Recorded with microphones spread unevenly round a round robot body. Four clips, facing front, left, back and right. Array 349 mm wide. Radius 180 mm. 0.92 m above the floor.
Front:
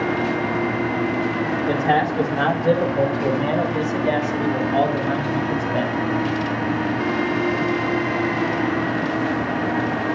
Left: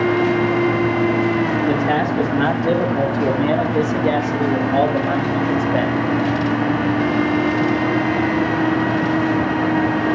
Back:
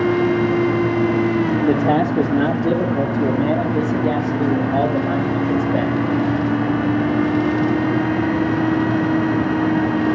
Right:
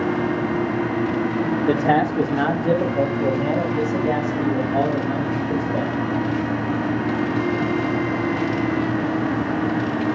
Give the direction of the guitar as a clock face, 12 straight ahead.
No guitar in this recording.